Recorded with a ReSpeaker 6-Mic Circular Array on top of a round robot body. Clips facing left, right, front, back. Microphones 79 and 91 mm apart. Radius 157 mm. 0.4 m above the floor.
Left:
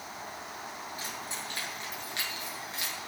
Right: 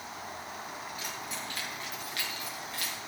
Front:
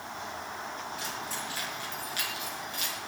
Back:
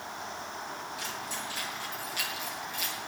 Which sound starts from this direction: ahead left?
Keys jangling, at 1.0 s.